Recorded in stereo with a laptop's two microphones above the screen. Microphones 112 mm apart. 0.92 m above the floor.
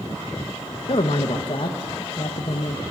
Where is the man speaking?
50° left (ahead or behind), 0.6 m.